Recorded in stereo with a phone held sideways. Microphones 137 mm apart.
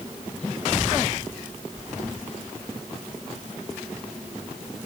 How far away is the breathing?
No breathing in this recording.